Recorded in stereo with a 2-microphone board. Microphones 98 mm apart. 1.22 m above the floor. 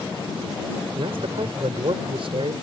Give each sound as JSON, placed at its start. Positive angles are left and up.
{"t": 0.9, "sound": "a man speaking", "side_deg": -65}